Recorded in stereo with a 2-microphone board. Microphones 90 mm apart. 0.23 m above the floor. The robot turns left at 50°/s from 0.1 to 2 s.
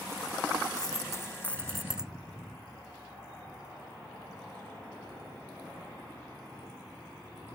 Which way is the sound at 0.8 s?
55° left.